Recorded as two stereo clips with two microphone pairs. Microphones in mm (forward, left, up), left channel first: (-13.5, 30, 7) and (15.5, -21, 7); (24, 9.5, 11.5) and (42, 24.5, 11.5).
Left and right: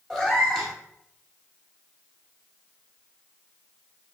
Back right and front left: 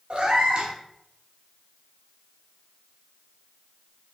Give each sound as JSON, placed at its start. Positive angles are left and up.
{"t": 0.1, "sound": "a cat meowing", "azimuth_deg": 40, "distance_m": 1.0}